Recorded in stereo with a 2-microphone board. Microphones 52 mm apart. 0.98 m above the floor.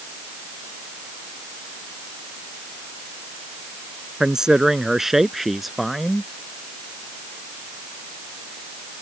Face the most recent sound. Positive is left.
turn(degrees=0)  # may be behind; listen again after turning